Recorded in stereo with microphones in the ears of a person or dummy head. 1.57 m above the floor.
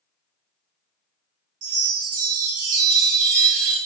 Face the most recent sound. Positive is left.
turn(degrees=-50)  # may be behind; listen again after turning